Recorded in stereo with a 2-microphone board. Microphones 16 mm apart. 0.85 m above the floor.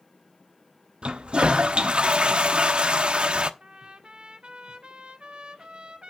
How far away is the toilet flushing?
About 0.8 m.